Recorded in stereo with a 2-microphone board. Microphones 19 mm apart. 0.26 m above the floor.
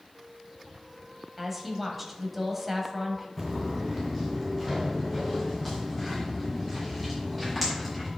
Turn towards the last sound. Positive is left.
turn(degrees=5)  # may be behind; listen again after turning